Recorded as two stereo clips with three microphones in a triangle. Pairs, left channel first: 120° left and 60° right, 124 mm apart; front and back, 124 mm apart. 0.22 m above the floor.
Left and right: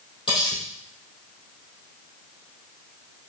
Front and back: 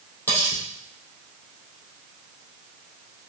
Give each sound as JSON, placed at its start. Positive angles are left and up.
{"t": 0.3, "sound": "cutlery clinking", "azimuth_deg": 70, "distance_m": 3.5}